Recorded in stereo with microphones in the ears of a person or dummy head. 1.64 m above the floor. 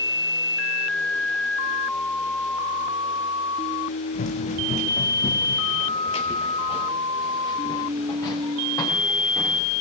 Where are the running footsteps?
40° left (ahead or behind), 6 m; by 9.6 s 15° left (ahead or behind), 9.5 m.